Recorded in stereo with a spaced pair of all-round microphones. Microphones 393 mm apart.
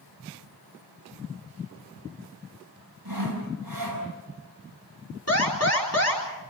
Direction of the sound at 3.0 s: 55° right (ahead or behind).